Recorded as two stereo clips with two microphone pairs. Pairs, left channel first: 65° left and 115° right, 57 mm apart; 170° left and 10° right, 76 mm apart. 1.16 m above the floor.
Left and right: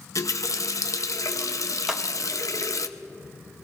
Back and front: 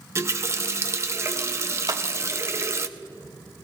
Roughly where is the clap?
Ahead right.